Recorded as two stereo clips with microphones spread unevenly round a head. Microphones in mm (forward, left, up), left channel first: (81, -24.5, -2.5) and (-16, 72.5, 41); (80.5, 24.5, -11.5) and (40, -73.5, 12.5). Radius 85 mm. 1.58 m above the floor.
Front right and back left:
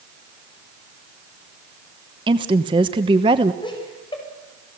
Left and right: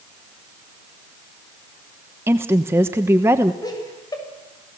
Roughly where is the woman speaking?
Behind.